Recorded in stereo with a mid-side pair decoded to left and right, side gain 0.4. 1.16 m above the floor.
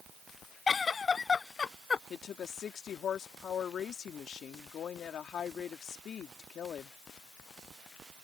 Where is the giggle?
40° left.